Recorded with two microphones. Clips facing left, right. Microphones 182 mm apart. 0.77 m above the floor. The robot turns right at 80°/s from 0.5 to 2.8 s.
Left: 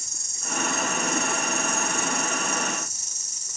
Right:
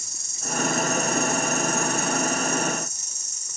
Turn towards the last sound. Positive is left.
turn(degrees=80)